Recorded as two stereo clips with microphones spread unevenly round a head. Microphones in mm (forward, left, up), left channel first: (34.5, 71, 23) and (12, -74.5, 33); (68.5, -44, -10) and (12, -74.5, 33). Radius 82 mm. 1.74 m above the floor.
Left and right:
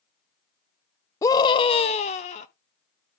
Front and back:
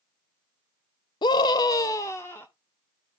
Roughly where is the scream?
Ahead left.